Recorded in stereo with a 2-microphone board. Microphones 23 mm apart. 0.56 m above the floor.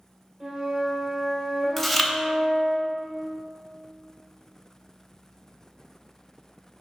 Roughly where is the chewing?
Centre.